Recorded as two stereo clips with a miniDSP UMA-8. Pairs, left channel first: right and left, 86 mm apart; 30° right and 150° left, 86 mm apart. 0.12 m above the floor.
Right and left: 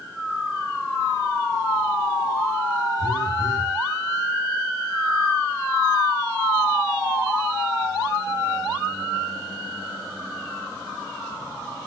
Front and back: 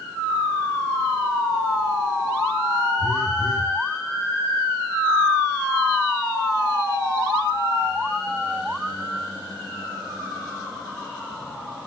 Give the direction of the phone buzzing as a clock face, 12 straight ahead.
2 o'clock.